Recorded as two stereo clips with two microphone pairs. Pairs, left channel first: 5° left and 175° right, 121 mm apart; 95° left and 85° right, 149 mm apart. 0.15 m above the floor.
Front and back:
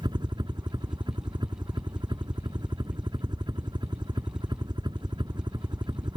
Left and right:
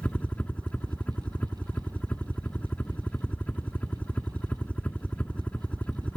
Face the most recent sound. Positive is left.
turn(degrees=175)